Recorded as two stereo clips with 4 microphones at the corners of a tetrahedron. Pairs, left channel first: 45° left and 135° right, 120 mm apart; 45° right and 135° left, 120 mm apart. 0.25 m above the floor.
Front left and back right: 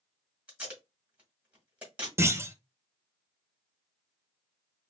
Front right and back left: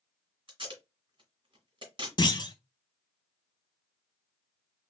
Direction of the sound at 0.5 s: 150° left.